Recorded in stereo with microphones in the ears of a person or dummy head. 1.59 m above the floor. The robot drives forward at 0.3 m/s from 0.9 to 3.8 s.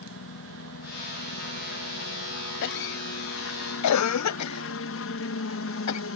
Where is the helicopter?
60° left (ahead or behind).